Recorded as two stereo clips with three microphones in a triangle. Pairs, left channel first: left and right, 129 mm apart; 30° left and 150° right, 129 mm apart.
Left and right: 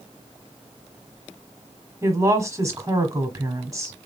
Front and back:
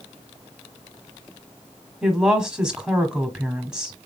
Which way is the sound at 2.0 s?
75° right.